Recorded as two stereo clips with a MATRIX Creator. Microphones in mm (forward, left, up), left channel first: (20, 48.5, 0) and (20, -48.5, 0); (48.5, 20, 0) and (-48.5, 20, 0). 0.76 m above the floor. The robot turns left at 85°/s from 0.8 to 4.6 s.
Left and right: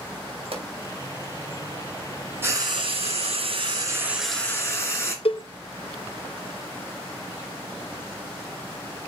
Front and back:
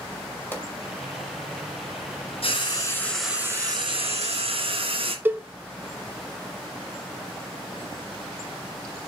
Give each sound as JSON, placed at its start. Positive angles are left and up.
{"t": 0.5, "sound": "a pop", "azimuth_deg": -70, "distance_m": 2.5}
{"t": 2.4, "sound": "frying", "azimuth_deg": -25, "distance_m": 2.5}
{"t": 5.2, "sound": "a cowbell", "azimuth_deg": 110, "distance_m": 0.6}